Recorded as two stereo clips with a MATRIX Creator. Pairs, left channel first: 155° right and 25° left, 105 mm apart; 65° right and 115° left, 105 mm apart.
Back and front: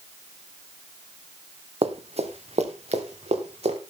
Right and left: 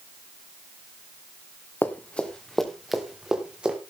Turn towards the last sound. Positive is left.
turn(degrees=30)